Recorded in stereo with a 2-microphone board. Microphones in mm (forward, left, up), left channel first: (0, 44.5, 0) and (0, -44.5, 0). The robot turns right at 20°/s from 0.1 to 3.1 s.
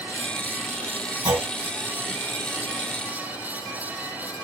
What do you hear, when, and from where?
1.2 s a clunk: 60° right (ahead or behind), 3.5 m; by 1.5 s 55° right (ahead or behind), 3.5 m